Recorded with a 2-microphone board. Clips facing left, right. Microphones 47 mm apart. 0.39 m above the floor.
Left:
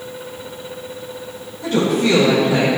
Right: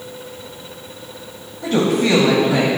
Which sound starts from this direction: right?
A woman speaking, at 1.6 s.